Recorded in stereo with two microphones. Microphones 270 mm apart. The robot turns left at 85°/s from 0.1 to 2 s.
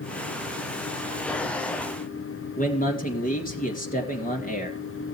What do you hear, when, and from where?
2.6 s a man speaking: 30° left (ahead or behind), 2.5 m